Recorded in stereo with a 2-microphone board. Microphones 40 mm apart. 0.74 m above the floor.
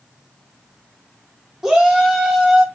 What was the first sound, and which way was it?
A shout, 15° right (ahead or behind).